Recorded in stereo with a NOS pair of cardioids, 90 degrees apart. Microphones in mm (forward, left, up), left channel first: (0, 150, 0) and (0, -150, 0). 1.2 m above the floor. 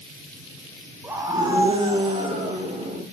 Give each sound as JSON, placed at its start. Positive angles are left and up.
{"t": 1.0, "sound": "a scream", "azimuth_deg": -5, "distance_m": 0.8}